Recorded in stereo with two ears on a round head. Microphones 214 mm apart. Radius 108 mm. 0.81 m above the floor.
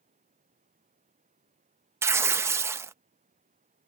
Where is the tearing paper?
10° right (ahead or behind).